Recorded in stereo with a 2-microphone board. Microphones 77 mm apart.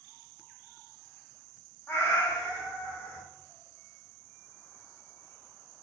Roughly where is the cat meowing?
Left.